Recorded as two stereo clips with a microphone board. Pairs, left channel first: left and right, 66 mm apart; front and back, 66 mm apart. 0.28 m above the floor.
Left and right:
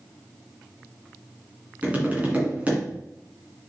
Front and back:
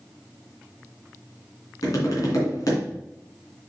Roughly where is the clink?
No clink in this recording.